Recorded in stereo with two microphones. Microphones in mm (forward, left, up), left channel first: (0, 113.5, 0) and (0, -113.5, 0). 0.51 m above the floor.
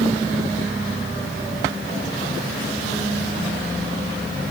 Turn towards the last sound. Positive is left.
No sound to turn to.